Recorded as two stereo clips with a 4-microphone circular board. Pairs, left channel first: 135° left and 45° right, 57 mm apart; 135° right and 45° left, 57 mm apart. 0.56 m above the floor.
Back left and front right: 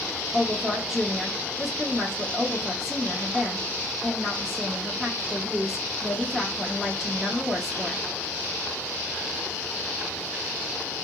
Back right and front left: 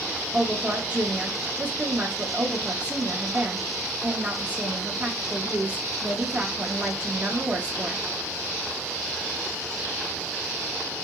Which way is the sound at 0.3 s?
35° left.